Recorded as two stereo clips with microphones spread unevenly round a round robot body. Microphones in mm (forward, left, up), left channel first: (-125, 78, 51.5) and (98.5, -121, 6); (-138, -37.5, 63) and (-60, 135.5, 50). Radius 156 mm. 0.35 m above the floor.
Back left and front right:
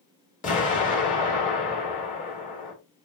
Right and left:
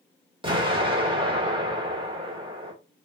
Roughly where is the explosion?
Left.